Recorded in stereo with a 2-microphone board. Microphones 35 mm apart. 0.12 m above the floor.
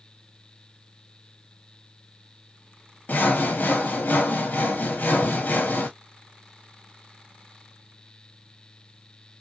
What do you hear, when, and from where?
3.1 s sawing: 55° left (ahead or behind), 0.8 m